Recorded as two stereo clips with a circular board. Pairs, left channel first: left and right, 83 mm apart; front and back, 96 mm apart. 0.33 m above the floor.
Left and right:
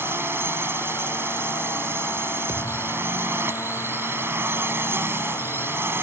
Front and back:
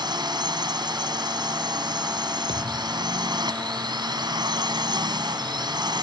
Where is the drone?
150° right.